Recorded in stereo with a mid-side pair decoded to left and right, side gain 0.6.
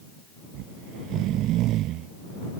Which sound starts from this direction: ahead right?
Snoring, at 0.5 s.